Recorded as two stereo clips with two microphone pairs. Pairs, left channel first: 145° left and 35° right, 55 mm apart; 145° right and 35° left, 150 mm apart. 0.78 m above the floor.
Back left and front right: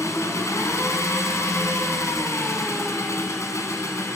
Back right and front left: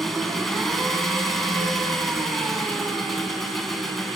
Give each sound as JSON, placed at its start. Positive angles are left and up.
{"t": 0.0, "sound": "an engine running", "azimuth_deg": 125, "distance_m": 2.5}